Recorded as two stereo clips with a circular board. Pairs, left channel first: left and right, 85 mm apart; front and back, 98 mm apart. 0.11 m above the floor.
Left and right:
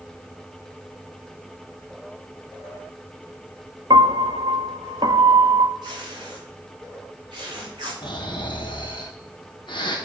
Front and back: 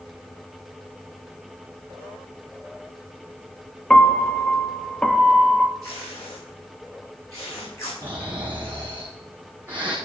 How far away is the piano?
About 0.5 m.